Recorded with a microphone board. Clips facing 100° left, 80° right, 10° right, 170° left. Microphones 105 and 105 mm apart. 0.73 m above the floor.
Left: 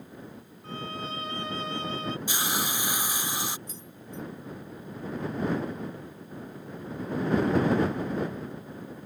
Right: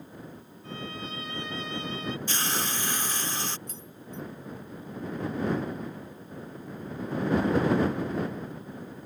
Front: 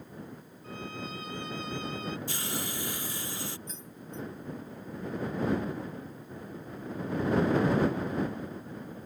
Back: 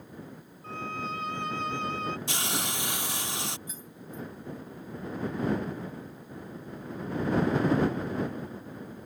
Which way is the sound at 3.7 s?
110° right.